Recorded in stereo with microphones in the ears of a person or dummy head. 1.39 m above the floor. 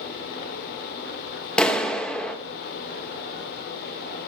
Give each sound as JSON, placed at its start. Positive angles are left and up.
{"t": 1.6, "sound": "a clap", "side_deg": 5, "distance_m": 1.5}